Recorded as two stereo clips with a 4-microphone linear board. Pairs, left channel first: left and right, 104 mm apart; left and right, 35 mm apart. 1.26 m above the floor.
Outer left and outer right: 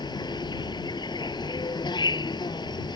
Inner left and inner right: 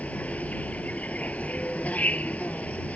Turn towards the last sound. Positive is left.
turn(degrees=50)  # may be behind; listen again after turning